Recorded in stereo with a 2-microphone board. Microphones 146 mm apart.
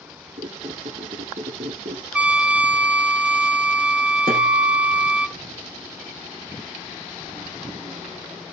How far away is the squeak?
About 2.5 m.